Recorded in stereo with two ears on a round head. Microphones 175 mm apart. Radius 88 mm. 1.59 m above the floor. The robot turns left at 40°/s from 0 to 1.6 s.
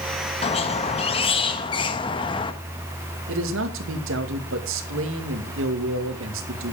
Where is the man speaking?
70° right (ahead or behind), 2 m.